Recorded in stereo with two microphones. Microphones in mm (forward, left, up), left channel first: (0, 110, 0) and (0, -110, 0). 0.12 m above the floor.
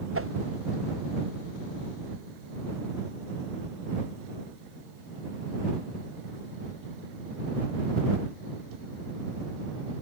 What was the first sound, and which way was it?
A whoosh, 75° right (ahead or behind).